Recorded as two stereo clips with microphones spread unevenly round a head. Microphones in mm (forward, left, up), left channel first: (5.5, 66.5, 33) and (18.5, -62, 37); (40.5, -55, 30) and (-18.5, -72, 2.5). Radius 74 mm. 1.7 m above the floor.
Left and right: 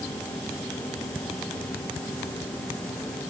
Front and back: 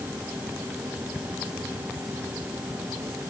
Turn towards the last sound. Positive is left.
No sound to turn to.